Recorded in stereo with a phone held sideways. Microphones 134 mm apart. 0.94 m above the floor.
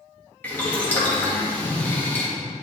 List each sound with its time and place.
0.4 s boiling: 15° left (ahead or behind), 1.7 m